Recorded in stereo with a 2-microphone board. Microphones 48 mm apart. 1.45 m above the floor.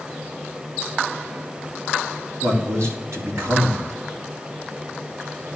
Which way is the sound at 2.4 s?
75° right (ahead or behind).